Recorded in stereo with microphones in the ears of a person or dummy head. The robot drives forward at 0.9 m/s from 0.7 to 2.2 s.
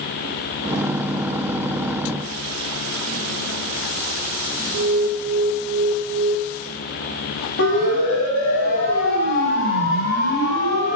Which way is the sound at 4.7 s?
70° right (ahead or behind).